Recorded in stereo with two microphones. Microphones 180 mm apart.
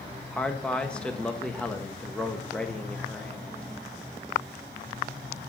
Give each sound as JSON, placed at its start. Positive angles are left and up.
{"t": 0.3, "sound": "a man speaking", "side_deg": 5, "distance_m": 1.1}